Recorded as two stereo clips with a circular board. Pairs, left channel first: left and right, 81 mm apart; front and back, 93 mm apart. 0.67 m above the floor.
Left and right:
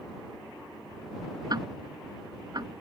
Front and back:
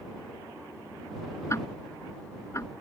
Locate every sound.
1.5 s ticking: 60° right